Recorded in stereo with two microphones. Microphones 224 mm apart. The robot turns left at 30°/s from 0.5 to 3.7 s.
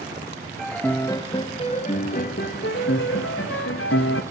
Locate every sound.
0.6 s a piano: straight behind, 0.6 m; by 4.2 s 85° left, 0.6 m